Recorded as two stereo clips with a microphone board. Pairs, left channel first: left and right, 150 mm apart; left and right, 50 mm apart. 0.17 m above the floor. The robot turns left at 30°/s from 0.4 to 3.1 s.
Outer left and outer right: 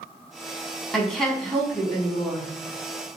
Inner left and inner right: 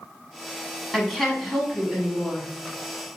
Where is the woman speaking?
5° left (ahead or behind), 1.1 m; by 2.5 s 10° right (ahead or behind), 1.1 m.